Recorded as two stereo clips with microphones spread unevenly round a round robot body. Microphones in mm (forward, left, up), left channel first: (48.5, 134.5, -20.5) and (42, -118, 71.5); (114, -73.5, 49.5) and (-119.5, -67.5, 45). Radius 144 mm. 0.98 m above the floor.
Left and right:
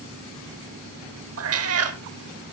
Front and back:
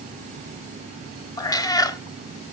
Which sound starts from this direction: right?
A cat meowing, at 1.4 s.